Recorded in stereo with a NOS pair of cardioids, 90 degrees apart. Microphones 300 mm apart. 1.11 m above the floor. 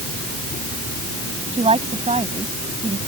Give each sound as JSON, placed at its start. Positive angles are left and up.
{"t": 1.5, "sound": "a woman speaking", "azimuth_deg": -20}